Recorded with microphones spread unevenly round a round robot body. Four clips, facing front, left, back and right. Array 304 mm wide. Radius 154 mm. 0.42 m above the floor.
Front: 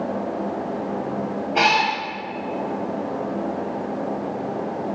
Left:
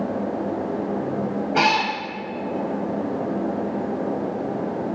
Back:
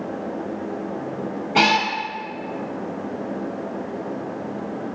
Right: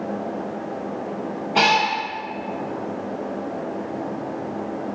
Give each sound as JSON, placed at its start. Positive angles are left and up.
{"t": 1.6, "sound": "a cat meowing", "azimuth_deg": 165, "distance_m": 0.9}